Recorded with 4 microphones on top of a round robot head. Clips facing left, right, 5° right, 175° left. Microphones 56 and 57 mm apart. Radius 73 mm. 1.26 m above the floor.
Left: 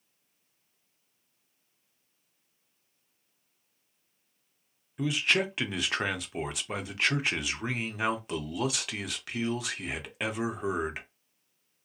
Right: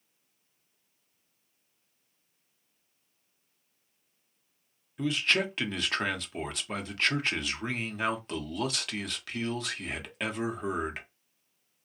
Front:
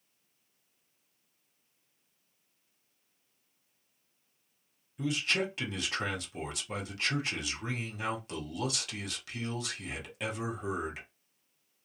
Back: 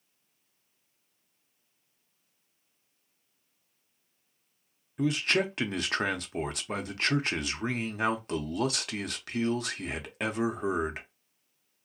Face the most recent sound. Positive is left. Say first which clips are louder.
# even, back 4 dB
turn(degrees=170)